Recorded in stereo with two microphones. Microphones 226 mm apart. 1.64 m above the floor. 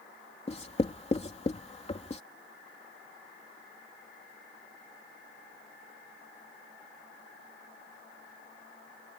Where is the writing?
30° left (ahead or behind).